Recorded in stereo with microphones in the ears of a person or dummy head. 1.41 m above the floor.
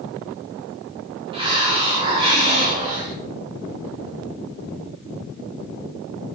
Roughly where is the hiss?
Right.